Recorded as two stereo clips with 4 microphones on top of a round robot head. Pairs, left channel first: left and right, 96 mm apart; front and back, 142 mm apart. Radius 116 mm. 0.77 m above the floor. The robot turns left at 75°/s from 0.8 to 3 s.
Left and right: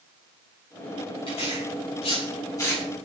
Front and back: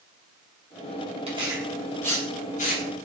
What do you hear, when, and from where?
1.3 s tearing paper: 135° left, 8 m; by 3.0 s 5° left, 8 m